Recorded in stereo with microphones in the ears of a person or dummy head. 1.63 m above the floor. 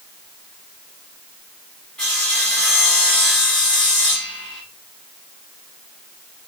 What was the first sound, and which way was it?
Sawing, 5° left (ahead or behind).